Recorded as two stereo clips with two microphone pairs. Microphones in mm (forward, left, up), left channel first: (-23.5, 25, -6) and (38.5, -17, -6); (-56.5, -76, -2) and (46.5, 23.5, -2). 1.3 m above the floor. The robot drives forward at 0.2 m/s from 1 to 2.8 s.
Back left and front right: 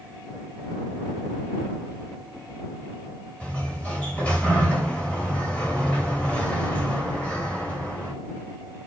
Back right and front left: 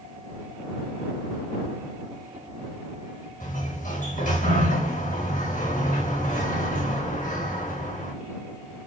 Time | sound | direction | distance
3.4 | a sliding door | 145° right | 1.3 m